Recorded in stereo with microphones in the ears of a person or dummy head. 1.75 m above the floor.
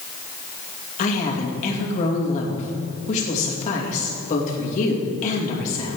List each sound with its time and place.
1.0 s a woman speaking: 40° left (ahead or behind), 2.5 m